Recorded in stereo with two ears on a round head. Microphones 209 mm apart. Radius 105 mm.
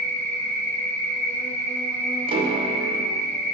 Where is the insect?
10° left (ahead or behind), 0.8 m.